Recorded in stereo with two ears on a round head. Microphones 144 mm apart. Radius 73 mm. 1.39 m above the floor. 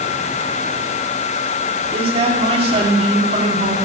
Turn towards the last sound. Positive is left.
turn(degrees=-40)  # may be behind; listen again after turning